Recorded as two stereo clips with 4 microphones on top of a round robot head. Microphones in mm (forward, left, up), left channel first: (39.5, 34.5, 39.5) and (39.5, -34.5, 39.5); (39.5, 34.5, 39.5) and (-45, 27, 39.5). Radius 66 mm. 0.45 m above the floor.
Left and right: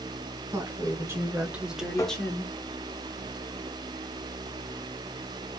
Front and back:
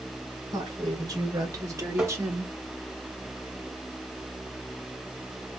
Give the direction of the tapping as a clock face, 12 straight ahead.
8 o'clock.